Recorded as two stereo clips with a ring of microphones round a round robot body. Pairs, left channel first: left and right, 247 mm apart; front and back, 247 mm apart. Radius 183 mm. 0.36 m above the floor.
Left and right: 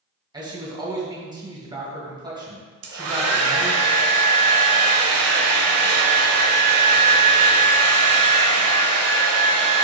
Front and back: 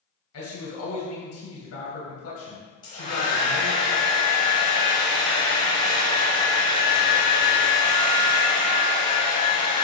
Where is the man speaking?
20° right, 2.5 m.